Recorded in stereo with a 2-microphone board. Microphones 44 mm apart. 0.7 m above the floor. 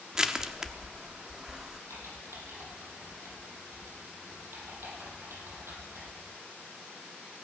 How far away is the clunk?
No clunk in this recording.